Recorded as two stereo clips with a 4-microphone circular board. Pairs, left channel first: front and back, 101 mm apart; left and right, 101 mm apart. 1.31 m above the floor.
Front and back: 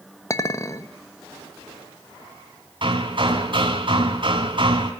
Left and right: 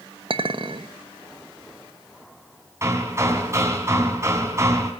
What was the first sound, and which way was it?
A clink, 60° right.